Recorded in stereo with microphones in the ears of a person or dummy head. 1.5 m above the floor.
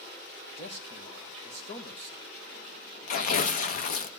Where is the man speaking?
40° left (ahead or behind), 1.8 m.